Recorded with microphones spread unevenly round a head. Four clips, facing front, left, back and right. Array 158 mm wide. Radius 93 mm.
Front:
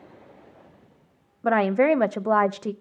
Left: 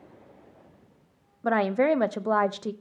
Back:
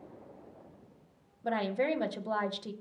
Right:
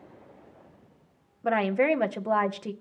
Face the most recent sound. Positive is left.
turn(degrees=0)